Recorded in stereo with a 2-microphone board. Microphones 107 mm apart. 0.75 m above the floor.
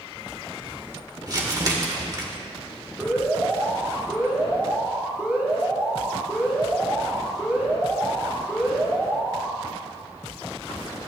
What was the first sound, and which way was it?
Crumpling, 35° right (ahead or behind).